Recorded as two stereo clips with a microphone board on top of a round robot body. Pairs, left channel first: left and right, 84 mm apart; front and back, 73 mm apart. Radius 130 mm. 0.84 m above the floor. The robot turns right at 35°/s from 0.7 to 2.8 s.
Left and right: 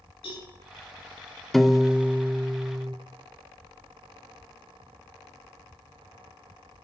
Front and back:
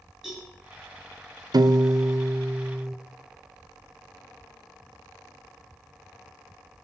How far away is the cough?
I don't hear a cough.